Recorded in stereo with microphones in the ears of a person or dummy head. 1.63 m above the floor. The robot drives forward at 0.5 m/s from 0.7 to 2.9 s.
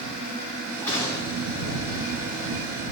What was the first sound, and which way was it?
A gunshot, 15° left (ahead or behind).